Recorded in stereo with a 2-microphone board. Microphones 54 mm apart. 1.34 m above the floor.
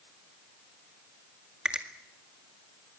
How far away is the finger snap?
About 1.9 m.